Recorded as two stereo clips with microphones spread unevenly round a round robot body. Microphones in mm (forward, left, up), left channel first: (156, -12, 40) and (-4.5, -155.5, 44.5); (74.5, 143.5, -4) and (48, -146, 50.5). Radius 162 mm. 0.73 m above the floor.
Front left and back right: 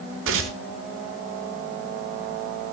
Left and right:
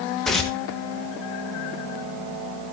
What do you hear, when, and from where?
0.2 s tearing paper: 175° left, 1.2 m